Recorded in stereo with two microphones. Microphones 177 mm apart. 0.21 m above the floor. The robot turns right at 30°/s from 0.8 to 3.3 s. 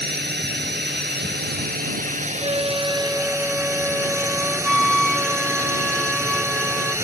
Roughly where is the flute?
Right.